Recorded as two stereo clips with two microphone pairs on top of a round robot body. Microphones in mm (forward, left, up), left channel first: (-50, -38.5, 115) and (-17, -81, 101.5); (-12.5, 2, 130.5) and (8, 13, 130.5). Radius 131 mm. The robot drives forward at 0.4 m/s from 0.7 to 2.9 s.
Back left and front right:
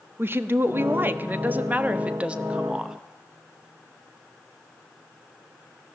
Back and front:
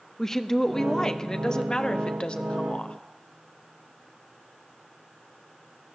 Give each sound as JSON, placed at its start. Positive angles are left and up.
{"t": 0.2, "sound": "a woman speaking", "azimuth_deg": -85, "distance_m": 1.4}